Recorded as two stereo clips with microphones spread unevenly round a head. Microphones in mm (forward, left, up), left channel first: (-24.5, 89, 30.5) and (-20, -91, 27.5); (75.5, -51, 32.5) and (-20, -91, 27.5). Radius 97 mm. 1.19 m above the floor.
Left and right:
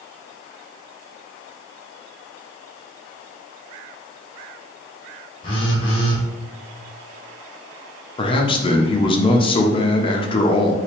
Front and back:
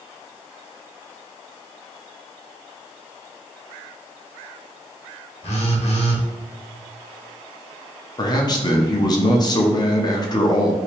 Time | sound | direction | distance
5.4 | a phone buzzing | 25° left | 1.0 m
8.2 | a man speaking | 45° left | 0.6 m